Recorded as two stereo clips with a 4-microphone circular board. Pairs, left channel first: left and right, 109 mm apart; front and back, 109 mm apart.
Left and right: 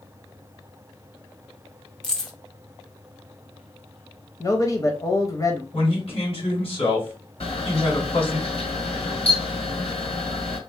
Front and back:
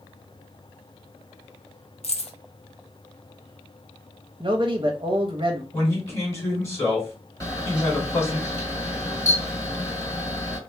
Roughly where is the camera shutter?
Ahead left.